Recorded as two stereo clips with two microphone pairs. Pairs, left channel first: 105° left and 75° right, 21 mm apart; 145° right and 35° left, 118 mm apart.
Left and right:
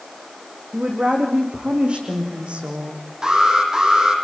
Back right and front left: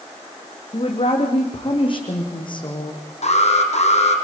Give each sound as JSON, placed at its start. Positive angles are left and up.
{"t": 0.7, "sound": "a woman speaking", "azimuth_deg": -110, "distance_m": 6.5}
{"t": 3.2, "sound": "an alarm", "azimuth_deg": -130, "distance_m": 5.0}